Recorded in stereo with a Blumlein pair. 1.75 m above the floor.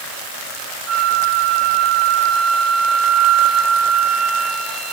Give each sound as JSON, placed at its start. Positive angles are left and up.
{"t": 0.9, "sound": "a flute", "azimuth_deg": -20, "distance_m": 1.6}